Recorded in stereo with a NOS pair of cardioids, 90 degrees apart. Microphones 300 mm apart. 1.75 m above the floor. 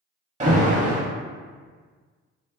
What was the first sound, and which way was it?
An alarm, 25° right.